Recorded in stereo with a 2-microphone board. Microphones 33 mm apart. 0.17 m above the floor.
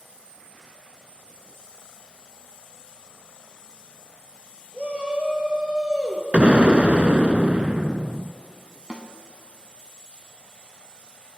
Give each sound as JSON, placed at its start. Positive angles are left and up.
{"t": 4.7, "sound": "a shout", "side_deg": -30, "distance_m": 4.0}
{"t": 6.3, "sound": "an explosion", "side_deg": -40, "distance_m": 0.5}
{"t": 8.9, "sound": "a snare drum", "side_deg": -25, "distance_m": 1.1}